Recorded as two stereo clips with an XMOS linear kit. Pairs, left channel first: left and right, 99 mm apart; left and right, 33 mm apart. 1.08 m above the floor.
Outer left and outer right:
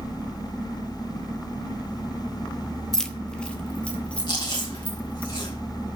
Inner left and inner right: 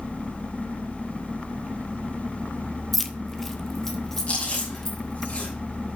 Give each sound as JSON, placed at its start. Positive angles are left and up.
{"t": 2.9, "sound": "keys jangling", "side_deg": 5, "distance_m": 0.9}
{"t": 4.3, "sound": "chewing", "side_deg": 45, "distance_m": 6.0}